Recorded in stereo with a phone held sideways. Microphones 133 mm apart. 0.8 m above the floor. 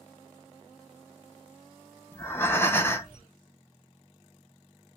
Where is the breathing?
15° left (ahead or behind), 0.5 m.